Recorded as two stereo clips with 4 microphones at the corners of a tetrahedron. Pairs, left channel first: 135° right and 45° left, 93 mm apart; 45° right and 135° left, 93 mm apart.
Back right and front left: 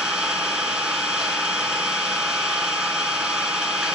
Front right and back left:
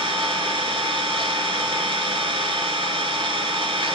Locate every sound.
0.0 s an engine running: 125° left, 1.2 m